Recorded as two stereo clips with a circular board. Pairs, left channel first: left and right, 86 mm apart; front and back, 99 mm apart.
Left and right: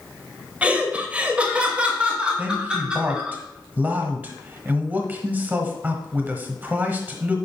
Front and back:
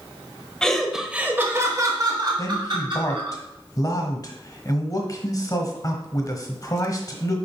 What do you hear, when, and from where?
0.6 s laughter: 65° right, 0.9 m; by 3.4 s 170° right, 1.7 m
2.4 s a man speaking: 30° right, 1.2 m